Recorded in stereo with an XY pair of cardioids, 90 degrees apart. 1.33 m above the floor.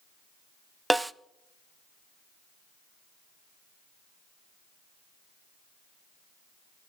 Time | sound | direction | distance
0.9 | a snare drum | 15° right | 0.6 m